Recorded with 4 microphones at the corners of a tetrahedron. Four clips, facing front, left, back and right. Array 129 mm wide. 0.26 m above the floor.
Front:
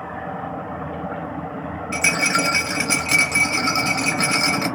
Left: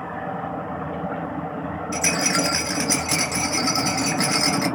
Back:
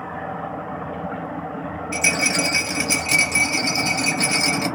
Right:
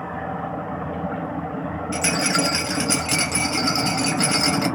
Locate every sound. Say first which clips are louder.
1.9 s a rattle: right 1 dB, front 2 dB; 10° right, 1.2 m